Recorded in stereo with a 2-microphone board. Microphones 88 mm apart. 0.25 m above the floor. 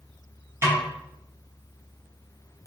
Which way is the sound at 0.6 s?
30° right (ahead or behind).